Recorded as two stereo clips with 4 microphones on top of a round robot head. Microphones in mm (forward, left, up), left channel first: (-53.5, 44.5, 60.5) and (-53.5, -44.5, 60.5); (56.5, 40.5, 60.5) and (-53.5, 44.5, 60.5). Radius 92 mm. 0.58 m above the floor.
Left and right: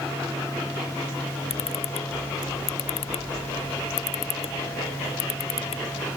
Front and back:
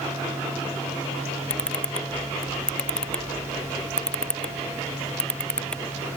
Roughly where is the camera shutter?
Left.